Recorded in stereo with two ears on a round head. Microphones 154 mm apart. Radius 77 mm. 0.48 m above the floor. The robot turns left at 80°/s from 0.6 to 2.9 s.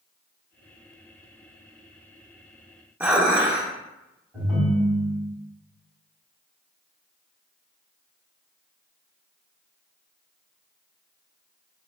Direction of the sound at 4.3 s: 5° right (ahead or behind).